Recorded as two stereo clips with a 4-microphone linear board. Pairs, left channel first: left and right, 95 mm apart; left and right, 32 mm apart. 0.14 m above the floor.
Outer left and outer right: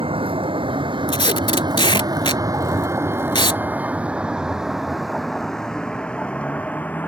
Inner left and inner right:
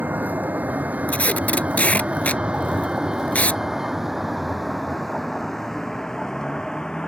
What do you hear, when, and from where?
0.0 s a vehicle: 65° right (ahead or behind); by 7.1 s 15° left (ahead or behind)
1.1 s tape being pulled: 55° left (ahead or behind)